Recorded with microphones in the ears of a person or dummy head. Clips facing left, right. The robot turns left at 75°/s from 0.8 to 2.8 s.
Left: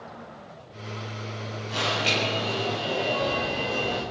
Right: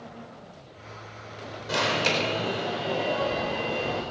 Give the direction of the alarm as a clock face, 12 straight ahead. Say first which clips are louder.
Right 2 dB; 3 o'clock.